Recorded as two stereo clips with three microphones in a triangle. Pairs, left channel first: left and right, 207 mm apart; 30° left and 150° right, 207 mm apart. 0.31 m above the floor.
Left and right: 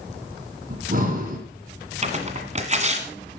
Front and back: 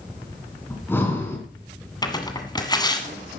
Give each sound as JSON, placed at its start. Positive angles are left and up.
{"t": 0.7, "sound": "breathing", "azimuth_deg": -50, "distance_m": 2.5}
{"t": 2.0, "sound": "tearing paper", "azimuth_deg": -40, "distance_m": 1.8}